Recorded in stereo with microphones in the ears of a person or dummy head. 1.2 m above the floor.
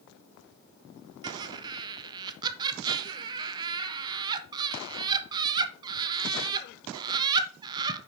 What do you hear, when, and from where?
1.2 s laughter: 20° right (ahead or behind), 0.5 m